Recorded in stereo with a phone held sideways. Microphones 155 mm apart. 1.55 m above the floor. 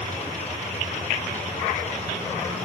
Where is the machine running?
50° left (ahead or behind), 4.5 m.